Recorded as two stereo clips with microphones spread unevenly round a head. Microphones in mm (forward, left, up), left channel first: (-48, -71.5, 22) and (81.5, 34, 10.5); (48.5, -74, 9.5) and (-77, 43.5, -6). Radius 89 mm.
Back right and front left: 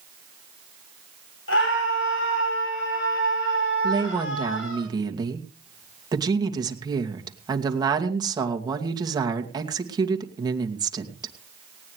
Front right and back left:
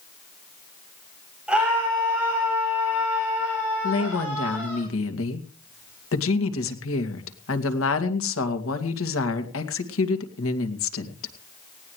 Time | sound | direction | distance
1.5 | a scream | 140° right | 8.5 m
3.8 | a woman speaking | 30° right | 2.5 m